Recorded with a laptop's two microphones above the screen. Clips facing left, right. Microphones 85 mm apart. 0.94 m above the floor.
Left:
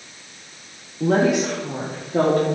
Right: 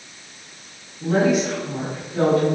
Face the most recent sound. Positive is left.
turn(degrees=55)  # may be behind; listen again after turning